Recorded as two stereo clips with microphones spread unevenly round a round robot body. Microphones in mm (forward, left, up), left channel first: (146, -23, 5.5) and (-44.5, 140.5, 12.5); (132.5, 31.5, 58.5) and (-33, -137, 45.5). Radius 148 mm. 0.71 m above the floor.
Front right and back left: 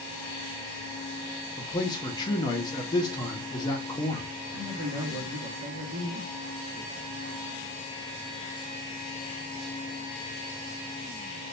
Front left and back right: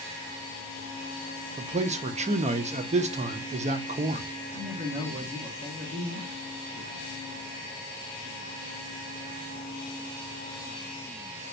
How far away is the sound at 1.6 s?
About 0.5 m.